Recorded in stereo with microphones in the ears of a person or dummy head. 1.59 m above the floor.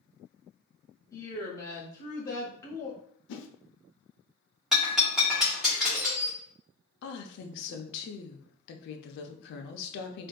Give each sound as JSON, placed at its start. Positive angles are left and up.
{"t": 1.1, "sound": "a woman speaking", "side_deg": 20, "distance_m": 0.7}
{"t": 3.3, "sound": "a whoosh", "side_deg": 60, "distance_m": 0.6}
{"t": 4.7, "sound": "breaking glass", "side_deg": 0, "distance_m": 1.3}
{"t": 7.0, "sound": "a woman speaking", "side_deg": 65, "distance_m": 0.6}